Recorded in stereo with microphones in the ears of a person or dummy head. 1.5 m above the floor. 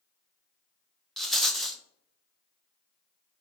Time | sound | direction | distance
1.2 | a rattle | 5° left (ahead or behind) | 0.5 m